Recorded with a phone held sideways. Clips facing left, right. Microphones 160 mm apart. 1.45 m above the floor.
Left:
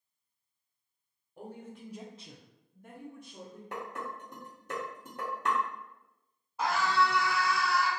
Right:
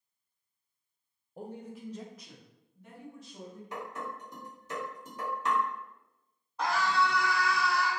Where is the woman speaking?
40° right (ahead or behind), 0.5 m; by 3.6 s 65° left (ahead or behind), 1.5 m.